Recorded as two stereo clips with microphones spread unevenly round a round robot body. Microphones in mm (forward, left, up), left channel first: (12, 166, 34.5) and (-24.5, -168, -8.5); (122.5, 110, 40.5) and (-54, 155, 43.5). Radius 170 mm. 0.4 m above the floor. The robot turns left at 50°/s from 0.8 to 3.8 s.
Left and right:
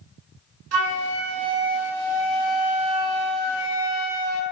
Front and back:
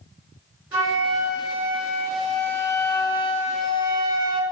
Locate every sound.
0.7 s a flute: 110° right, 0.9 m; by 4.4 s 100° left, 0.9 m